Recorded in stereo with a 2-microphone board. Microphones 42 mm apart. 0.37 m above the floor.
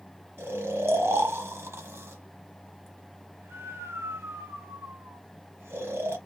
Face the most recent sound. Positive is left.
turn(degrees=-70)  # may be behind; listen again after turning